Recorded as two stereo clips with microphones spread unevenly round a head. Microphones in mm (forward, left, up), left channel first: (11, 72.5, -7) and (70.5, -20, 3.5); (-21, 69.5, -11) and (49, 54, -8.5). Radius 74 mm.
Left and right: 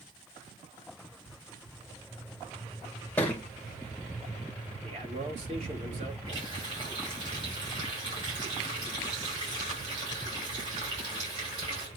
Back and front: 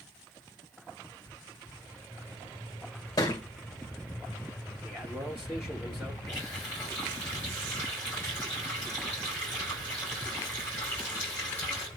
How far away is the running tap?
About 6 m.